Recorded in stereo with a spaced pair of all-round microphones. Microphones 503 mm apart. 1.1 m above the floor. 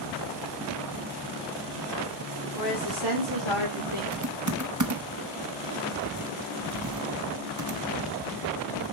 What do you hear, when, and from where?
2.5 s a woman speaking: 40° right (ahead or behind), 4 m; by 4.0 s 70° right (ahead or behind), 3 m
4.1 s typing on a keyboard: 35° right (ahead or behind), 0.9 m